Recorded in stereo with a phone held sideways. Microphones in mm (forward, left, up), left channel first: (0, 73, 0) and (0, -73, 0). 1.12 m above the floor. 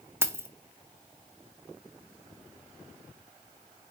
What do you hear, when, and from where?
0.2 s keys jangling: 15° right (ahead or behind), 0.5 m